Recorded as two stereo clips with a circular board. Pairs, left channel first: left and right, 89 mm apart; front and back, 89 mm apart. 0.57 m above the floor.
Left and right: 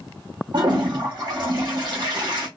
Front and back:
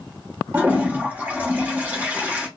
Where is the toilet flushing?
115° right, 1.1 m.